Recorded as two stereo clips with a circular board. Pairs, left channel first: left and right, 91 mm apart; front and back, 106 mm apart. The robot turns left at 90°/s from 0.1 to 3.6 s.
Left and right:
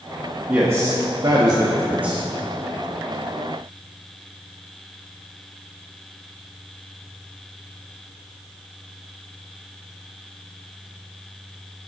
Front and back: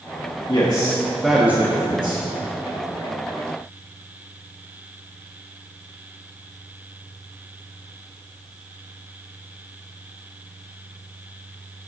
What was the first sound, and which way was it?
A man speaking, 20° right.